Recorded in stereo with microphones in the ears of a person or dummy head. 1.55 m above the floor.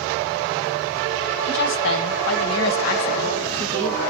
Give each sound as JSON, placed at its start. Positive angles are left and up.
{"t": 1.5, "sound": "a woman speaking", "side_deg": 60, "distance_m": 1.4}